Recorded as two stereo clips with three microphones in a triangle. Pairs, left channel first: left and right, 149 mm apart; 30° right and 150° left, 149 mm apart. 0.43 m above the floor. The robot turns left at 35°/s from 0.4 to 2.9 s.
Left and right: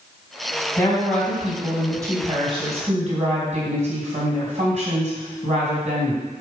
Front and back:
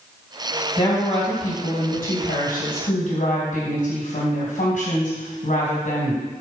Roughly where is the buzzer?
No buzzer in this recording.